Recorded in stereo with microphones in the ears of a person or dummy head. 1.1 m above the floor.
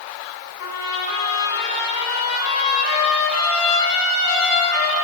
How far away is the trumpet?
About 8 m.